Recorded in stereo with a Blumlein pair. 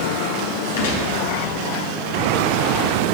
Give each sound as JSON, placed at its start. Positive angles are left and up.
{"t": 0.8, "sound": "a gunshot", "azimuth_deg": 60, "distance_m": 3.5}